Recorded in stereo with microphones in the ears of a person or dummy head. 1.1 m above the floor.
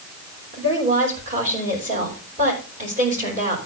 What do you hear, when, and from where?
0.5 s a woman speaking: 35° right (ahead or behind), 5 m